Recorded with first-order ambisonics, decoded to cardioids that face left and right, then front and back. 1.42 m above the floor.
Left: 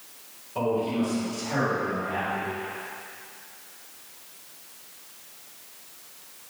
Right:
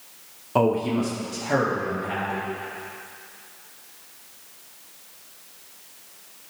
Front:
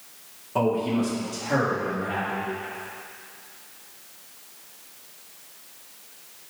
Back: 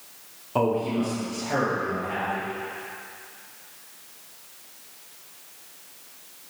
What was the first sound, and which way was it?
A man speaking, 105° right.